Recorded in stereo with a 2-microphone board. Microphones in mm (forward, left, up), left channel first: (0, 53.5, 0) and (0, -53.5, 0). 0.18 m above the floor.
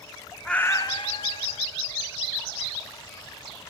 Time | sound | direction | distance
0.5 | a cat meowing | 5° left (ahead or behind) | 0.6 m